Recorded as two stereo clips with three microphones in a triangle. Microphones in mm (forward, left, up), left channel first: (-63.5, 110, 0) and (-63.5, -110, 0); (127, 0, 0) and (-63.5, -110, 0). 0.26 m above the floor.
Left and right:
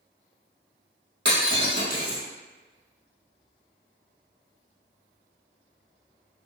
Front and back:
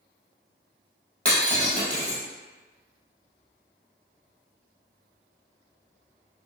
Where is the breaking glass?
55° right, 1.4 m.